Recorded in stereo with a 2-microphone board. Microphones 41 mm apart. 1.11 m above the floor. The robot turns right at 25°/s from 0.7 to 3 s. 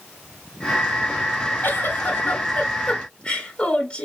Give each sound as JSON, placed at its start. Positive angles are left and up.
{"t": 1.6, "sound": "a giggle", "azimuth_deg": 115, "distance_m": 1.4}